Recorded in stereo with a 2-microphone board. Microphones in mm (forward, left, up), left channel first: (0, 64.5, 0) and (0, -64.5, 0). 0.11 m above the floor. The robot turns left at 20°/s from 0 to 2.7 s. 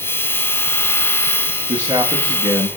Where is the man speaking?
35° right (ahead or behind), 6.5 m; by 2.7 s 15° right (ahead or behind), 6.5 m.